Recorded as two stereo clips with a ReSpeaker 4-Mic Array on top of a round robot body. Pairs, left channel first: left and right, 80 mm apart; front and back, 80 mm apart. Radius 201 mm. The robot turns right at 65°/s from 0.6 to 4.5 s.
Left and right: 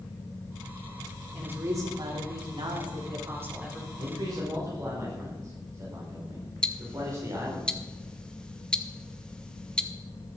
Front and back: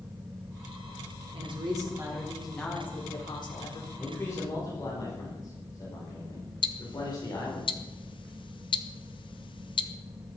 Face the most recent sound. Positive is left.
turn(degrees=10)